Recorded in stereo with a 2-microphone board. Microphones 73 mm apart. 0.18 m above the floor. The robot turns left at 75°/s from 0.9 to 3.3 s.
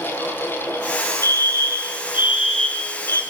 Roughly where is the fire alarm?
Right.